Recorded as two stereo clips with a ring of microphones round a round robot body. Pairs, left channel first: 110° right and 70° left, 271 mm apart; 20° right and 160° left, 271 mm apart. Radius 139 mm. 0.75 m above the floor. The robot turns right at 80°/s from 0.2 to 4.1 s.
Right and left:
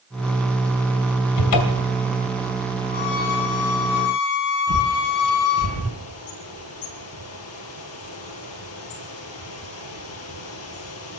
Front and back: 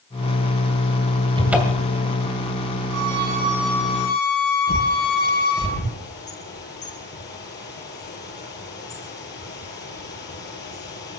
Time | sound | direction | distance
1.4 | a cupboard door | 130° right | 2.5 m
2.9 | a violin | 175° right | 3 m
4.7 | a bird | 75° right | 7 m